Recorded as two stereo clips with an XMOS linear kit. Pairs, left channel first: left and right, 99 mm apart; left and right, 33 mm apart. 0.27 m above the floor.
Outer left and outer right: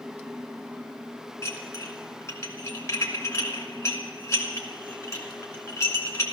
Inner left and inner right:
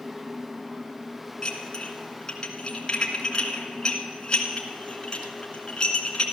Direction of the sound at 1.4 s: 30° left (ahead or behind).